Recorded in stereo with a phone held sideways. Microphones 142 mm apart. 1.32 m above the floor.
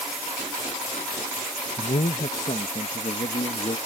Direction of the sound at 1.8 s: 55° left (ahead or behind).